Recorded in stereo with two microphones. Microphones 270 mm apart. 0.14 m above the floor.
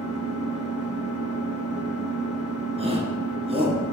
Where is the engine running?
60° right (ahead or behind), 1.4 m.